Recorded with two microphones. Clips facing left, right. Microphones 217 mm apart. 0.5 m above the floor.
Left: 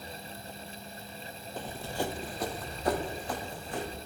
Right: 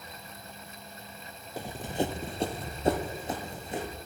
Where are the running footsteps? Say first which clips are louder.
Right 4 dB; 10° right (ahead or behind), 0.6 m; by 4.0 s 20° right (ahead or behind), 1.5 m.